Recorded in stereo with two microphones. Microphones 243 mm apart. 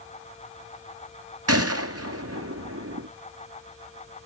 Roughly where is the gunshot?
Right.